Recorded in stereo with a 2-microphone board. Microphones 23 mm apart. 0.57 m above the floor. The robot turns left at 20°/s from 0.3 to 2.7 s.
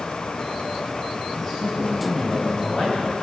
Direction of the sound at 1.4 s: 15° left (ahead or behind).